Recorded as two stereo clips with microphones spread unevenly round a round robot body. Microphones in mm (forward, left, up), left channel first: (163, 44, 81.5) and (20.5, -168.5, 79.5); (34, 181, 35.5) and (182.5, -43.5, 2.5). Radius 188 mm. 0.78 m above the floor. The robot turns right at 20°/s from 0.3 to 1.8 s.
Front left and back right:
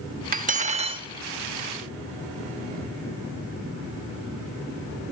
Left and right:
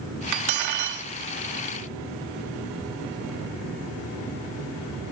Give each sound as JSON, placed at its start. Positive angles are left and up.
{"t": 0.3, "sound": "cutlery clinking", "azimuth_deg": -65, "distance_m": 0.9}